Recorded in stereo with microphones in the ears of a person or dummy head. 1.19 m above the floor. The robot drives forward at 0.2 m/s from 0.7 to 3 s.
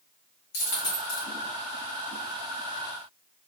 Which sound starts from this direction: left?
A dropped coin, at 0.5 s.